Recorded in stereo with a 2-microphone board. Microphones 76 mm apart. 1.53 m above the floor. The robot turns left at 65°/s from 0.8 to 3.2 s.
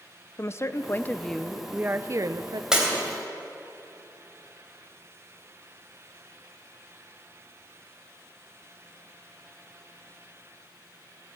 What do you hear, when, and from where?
0.4 s a woman speaking: 40° left, 0.6 m; by 2.6 s 75° right, 0.6 m
2.7 s breaking glass: 10° right (ahead or behind), 3.5 m; by 2.9 s 20° right (ahead or behind), 3.5 m